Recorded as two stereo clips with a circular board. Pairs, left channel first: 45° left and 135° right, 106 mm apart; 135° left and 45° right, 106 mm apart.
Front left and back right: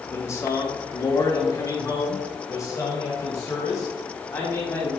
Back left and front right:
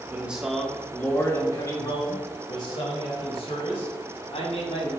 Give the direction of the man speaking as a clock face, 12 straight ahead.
12 o'clock.